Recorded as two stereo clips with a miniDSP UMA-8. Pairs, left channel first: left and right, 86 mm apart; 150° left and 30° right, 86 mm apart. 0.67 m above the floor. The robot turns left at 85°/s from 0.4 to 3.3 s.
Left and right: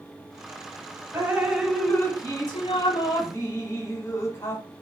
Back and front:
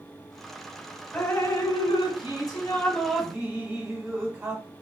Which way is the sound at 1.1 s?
145° right.